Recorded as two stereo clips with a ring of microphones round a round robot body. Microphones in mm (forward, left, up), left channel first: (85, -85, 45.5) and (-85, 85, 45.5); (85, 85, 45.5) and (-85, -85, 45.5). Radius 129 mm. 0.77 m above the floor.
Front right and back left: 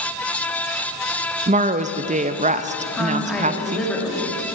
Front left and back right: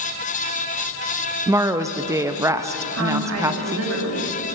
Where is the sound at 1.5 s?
160° left, 0.5 m.